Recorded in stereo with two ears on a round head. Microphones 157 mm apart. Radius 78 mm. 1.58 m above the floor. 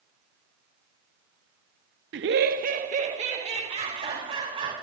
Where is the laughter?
70° right (ahead or behind), 0.6 m; by 4.7 s 30° right (ahead or behind), 4 m.